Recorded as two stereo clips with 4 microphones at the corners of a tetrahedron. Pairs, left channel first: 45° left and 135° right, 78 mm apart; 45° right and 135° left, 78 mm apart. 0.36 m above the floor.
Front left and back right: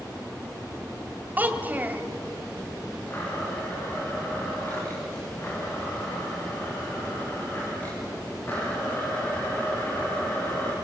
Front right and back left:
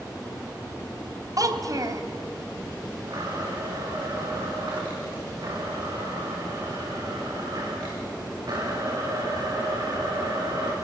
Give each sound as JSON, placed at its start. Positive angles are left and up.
{"t": 1.4, "sound": "a child speaking", "azimuth_deg": 160, "distance_m": 1.6}
{"t": 3.1, "sound": "a blender", "azimuth_deg": 105, "distance_m": 6.5}